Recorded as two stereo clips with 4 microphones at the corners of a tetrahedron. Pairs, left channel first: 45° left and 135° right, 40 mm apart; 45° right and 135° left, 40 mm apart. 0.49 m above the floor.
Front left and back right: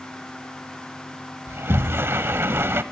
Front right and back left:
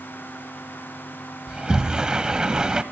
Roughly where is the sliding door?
Behind right.